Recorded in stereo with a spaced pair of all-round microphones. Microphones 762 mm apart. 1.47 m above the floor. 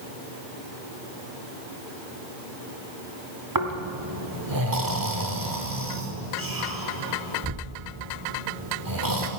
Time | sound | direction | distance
3.5 | snoring | 25° right (ahead or behind) | 1.4 m